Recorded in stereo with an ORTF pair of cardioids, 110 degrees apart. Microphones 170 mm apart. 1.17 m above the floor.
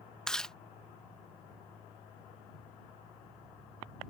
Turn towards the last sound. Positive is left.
turn(degrees=5)